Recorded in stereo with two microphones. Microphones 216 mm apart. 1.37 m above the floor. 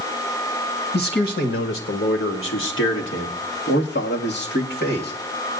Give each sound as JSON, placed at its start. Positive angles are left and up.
{"t": 0.9, "sound": "a man speaking", "side_deg": 60, "distance_m": 1.3}